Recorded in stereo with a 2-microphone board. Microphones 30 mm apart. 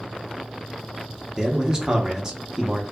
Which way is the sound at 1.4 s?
25° right (ahead or behind).